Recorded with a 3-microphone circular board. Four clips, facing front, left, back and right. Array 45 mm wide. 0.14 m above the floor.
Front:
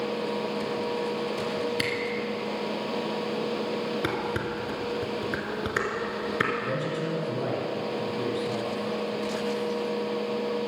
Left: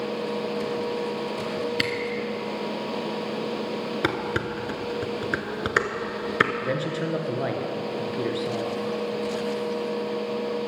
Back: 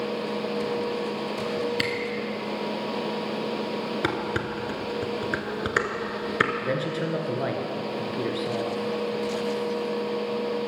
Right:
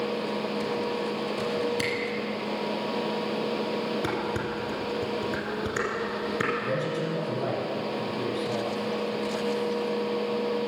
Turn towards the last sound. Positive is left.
turn(degrees=130)